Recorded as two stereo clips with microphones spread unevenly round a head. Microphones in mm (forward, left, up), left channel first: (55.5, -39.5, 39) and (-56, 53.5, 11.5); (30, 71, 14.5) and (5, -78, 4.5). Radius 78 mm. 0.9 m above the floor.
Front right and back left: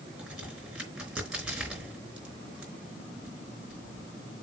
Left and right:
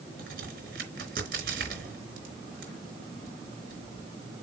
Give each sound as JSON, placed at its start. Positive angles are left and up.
{"t": 0.2, "sound": "a crack", "azimuth_deg": -135, "distance_m": 4.0}